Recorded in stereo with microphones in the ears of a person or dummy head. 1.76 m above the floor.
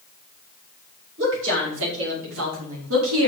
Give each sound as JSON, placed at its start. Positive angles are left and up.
{"t": 1.2, "sound": "a woman speaking", "side_deg": -70, "distance_m": 7.5}